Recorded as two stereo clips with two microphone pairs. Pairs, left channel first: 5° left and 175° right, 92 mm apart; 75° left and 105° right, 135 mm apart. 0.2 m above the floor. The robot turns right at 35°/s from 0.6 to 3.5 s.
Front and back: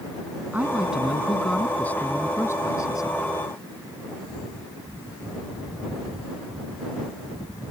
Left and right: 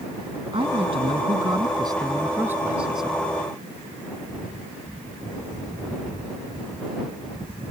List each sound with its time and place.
0.5 s a woman speaking: 105° right; by 3.2 s 10° right